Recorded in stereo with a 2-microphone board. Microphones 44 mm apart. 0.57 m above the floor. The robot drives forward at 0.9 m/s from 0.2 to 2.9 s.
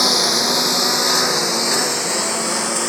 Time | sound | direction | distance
0.0 | a lawn mower | centre (ahead or behind) | ?